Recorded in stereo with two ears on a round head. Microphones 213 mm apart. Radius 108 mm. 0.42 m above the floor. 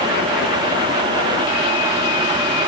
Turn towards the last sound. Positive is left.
No sound to turn to.